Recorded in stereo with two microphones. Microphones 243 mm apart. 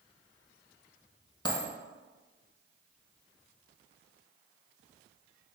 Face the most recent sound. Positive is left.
turn(degrees=20)  # may be behind; listen again after turning